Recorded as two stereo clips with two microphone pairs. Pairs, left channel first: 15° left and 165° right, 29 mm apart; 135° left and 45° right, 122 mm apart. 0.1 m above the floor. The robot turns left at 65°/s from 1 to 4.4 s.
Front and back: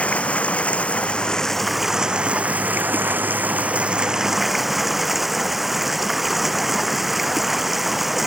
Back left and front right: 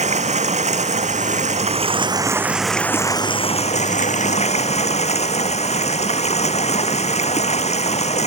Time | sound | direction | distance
0.0 | running water | 30° right | ?